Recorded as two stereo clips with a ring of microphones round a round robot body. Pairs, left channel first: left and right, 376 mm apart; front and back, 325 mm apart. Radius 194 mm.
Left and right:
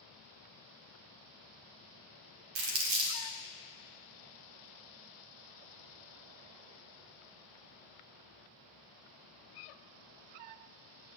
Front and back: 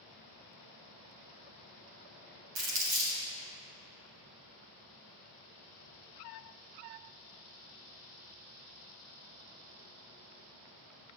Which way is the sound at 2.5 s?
125° right.